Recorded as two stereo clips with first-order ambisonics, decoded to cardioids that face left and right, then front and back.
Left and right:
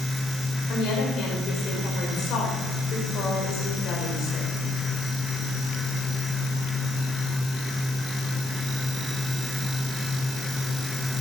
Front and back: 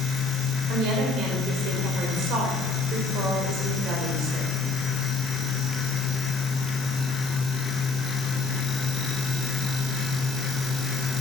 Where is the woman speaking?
135° left, 4.5 m.